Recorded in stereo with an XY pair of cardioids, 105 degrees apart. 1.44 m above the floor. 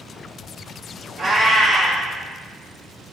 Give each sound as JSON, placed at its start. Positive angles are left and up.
{"t": 1.2, "sound": "a cat meowing", "azimuth_deg": -50, "distance_m": 1.9}